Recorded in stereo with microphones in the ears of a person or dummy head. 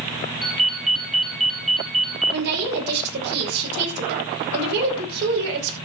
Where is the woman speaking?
55° right (ahead or behind), 5.5 m.